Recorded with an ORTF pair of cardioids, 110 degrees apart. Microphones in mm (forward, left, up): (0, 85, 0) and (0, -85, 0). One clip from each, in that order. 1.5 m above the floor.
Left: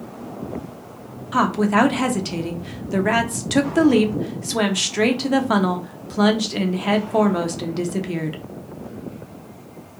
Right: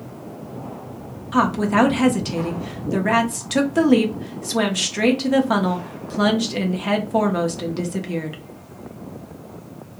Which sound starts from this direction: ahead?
A woman speaking, at 1.3 s.